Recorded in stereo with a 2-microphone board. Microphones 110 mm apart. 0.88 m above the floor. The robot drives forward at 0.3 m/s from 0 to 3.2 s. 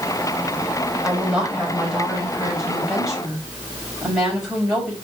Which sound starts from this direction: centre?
A woman speaking, at 1.0 s.